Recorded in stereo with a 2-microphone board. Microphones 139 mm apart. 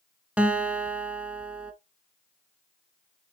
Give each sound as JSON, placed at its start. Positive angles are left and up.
{"t": 0.4, "sound": "a guitar", "side_deg": -10, "distance_m": 1.0}